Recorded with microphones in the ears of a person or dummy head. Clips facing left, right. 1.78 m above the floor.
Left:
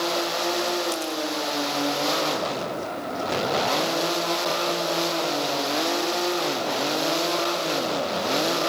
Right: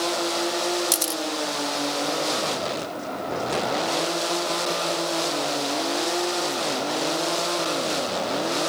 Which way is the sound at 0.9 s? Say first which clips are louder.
Left 1 dB; 55° right (ahead or behind).